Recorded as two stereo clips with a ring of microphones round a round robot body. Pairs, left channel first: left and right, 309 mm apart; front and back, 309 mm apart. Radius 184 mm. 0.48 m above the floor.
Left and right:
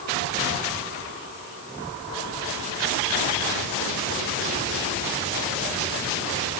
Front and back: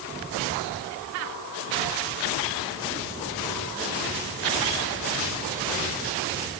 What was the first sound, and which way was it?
Only background noise.